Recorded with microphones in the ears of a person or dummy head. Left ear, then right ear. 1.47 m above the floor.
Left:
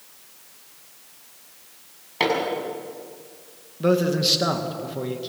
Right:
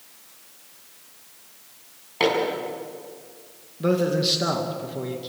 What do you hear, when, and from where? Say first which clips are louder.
2.2 s hammering: right 1 dB; 5° left (ahead or behind), 6 m
3.8 s a man speaking: left 1 dB; 10° left (ahead or behind), 2 m